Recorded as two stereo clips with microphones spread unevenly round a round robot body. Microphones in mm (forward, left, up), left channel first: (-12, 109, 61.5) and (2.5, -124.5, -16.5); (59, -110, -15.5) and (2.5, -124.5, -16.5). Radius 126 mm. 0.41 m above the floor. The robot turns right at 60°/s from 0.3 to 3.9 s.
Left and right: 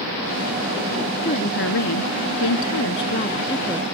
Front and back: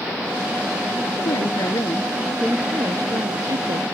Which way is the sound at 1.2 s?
30° left.